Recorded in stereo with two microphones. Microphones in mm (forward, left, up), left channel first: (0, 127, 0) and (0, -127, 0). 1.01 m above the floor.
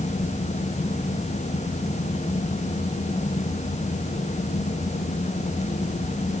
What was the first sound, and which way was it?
Only background noise.